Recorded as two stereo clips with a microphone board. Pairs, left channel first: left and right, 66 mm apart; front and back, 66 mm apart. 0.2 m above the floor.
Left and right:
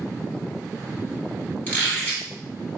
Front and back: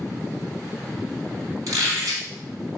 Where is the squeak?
155° left, 1.8 m.